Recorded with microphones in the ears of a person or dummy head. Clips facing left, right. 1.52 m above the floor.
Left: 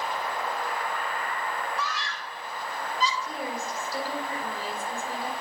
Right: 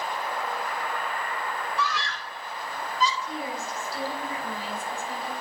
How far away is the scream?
About 2.5 m.